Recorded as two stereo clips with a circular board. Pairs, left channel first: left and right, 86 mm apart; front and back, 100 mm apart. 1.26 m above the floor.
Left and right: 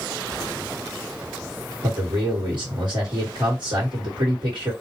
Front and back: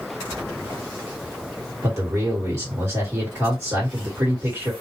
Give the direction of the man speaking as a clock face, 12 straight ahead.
4 o'clock.